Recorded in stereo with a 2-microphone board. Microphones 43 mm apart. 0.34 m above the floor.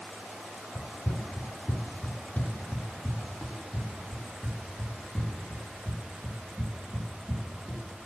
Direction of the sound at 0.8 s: 75° left (ahead or behind).